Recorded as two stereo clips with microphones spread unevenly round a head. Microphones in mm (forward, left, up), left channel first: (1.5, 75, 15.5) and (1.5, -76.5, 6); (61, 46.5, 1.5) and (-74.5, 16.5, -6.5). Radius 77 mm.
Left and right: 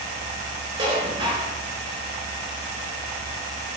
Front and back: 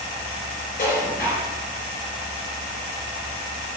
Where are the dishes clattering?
30° right, 4.5 m.